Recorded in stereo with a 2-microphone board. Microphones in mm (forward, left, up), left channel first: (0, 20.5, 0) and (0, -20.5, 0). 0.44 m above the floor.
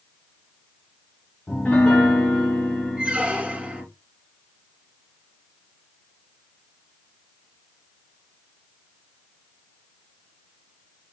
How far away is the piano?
About 1.6 m.